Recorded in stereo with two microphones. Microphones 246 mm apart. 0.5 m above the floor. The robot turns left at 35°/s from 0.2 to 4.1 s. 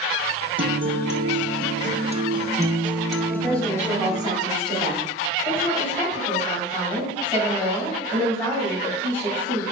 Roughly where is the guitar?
Right.